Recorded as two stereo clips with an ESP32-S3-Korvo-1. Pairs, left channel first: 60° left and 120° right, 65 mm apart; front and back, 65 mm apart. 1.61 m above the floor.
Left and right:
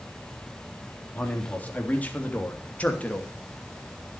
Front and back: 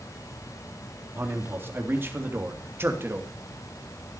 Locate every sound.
1.1 s a man speaking: 125° left, 3.5 m; by 3.3 s 130° left, 2.5 m